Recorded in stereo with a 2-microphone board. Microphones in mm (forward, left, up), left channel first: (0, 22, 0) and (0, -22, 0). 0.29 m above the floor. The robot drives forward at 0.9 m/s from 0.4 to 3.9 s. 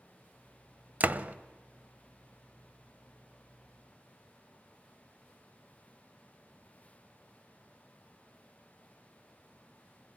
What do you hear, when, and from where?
1.0 s a door slam: 40° right (ahead or behind), 0.9 m; by 1.4 s 35° right (ahead or behind), 0.9 m